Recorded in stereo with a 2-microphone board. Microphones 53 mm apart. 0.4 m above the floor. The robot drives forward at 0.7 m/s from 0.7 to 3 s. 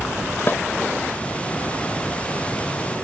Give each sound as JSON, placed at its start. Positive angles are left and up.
{"t": 0.5, "sound": "a snare drum", "side_deg": 40}